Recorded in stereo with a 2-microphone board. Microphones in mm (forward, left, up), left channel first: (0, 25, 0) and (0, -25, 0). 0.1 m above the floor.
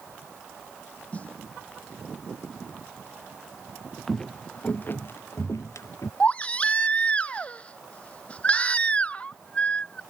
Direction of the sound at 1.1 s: 30° left (ahead or behind).